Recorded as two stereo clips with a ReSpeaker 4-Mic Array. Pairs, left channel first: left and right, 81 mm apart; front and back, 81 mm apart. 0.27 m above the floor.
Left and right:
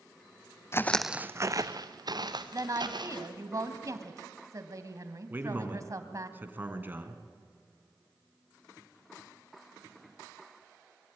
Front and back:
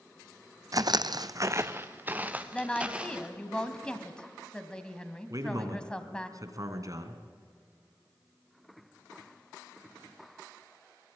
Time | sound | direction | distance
0.7 | footsteps | 145° left | 0.7 m
2.5 | a woman speaking | 75° right | 1.9 m
5.3 | a man speaking | 150° right | 2.5 m